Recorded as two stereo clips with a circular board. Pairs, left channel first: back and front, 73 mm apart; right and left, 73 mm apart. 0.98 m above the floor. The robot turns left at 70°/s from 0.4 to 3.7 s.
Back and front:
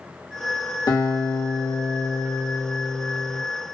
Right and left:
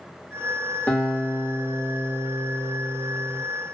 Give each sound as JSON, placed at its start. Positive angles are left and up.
{"t": 0.9, "sound": "a guitar", "azimuth_deg": -160, "distance_m": 1.4}